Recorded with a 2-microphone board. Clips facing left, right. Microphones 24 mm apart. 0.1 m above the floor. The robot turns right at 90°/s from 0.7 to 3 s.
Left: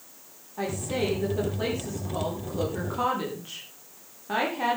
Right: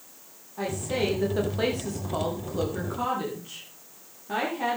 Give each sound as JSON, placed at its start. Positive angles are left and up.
{"t": 0.6, "sound": "a woman speaking", "azimuth_deg": 170, "distance_m": 7.0}